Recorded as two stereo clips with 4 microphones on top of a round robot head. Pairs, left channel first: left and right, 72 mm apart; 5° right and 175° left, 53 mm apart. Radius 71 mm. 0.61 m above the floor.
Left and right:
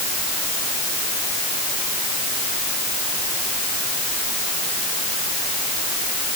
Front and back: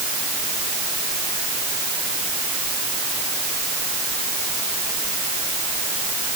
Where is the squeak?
I don't hear a squeak.